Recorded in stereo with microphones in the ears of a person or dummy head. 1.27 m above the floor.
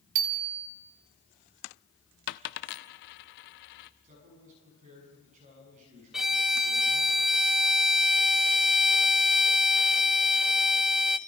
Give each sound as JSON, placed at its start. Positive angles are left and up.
{"t": 0.1, "sound": "a bicycle bell", "side_deg": -70, "distance_m": 2.5}
{"t": 2.3, "sound": "a dropped coin", "side_deg": 55, "distance_m": 0.9}
{"t": 4.0, "sound": "a man speaking", "side_deg": -40, "distance_m": 9.5}
{"t": 6.1, "sound": "a violin", "side_deg": 0, "distance_m": 0.6}